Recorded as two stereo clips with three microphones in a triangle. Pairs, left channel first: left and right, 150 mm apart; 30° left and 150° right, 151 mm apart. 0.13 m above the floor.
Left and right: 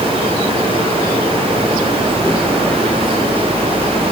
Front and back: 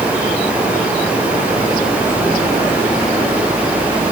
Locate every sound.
Only background noise.